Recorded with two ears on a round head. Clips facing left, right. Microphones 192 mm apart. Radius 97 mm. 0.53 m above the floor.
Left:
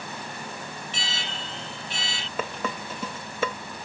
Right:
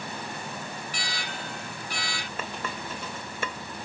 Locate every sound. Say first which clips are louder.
0.9 s an alarm: even; 25° left (ahead or behind)
2.4 s dishes clattering: left 6 dB; 65° left (ahead or behind)